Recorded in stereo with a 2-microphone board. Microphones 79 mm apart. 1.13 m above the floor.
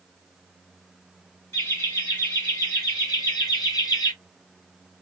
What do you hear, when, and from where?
1.5 s laughter: 45° left (ahead or behind), 2 m; by 4.1 s 60° left (ahead or behind), 1.1 m